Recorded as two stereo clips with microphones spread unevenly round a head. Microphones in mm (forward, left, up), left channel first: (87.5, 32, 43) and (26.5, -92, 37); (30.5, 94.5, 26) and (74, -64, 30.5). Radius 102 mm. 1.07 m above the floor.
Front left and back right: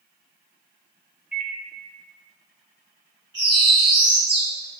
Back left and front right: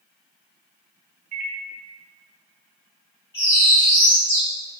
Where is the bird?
Straight behind, 2.0 m.